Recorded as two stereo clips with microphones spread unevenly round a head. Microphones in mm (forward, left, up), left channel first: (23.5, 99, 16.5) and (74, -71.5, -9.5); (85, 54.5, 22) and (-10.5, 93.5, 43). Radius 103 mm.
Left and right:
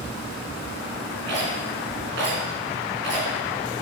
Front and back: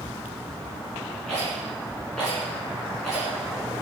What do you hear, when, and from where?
1.3 s a rattle: 115° right, 3 m